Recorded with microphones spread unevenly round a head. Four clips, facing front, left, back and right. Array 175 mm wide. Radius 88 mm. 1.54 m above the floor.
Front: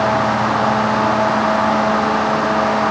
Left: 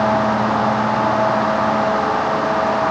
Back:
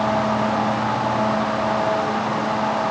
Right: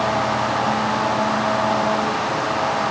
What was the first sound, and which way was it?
Only background noise.